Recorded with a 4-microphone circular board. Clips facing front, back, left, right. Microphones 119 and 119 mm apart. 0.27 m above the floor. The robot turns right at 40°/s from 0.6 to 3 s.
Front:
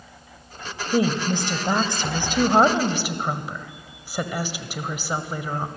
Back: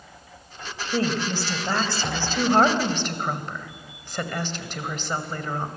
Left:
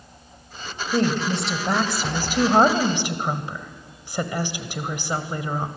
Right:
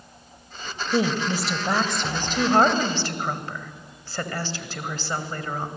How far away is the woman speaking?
About 1.4 m.